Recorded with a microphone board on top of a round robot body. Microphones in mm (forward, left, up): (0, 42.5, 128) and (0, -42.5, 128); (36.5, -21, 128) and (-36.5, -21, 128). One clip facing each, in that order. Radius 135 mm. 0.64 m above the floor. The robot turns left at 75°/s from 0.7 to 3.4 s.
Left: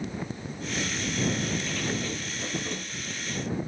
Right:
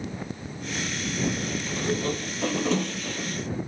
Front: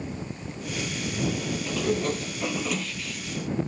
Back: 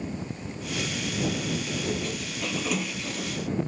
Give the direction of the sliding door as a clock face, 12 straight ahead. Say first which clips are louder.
Right 4 dB, front 4 dB; 12 o'clock.